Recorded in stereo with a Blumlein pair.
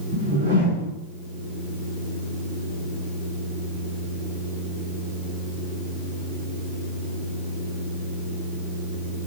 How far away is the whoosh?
About 1.3 m.